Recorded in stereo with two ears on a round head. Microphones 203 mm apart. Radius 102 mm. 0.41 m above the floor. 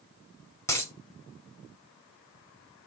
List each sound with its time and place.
0.7 s a dropped coin: 15° left (ahead or behind), 0.8 m